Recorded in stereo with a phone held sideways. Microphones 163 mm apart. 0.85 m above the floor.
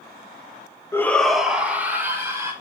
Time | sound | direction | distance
0.9 | a shout | 15° left (ahead or behind) | 0.9 m